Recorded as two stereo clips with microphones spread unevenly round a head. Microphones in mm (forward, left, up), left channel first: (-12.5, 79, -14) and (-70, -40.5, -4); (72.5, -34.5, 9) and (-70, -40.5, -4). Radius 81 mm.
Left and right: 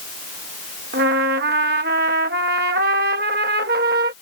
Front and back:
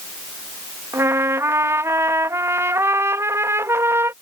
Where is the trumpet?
105° right.